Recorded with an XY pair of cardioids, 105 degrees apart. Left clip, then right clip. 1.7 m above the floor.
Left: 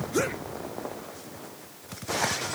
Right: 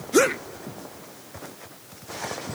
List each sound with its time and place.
Only background noise.